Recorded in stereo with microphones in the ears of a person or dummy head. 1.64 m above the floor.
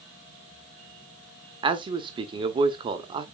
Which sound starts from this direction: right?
A man speaking, at 1.6 s.